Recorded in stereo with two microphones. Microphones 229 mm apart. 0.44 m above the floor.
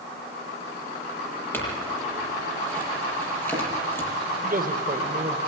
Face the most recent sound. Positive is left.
turn(degrees=-40)  # may be behind; listen again after turning